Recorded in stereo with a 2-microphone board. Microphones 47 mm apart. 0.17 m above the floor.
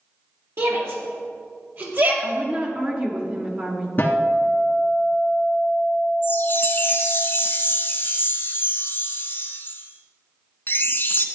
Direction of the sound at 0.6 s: 55° right (ahead or behind).